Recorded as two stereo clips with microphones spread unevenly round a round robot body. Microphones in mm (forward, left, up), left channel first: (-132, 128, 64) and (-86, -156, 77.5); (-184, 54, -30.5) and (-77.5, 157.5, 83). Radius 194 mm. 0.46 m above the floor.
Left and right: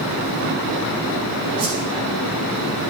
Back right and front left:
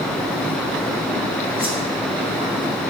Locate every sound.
1.6 s a whoosh: 55° right, 5 m